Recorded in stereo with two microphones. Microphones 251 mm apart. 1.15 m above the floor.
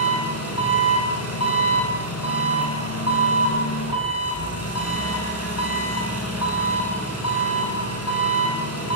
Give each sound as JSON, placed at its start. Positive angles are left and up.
{"t": 0.0, "sound": "an engine running", "side_deg": 75, "distance_m": 8.5}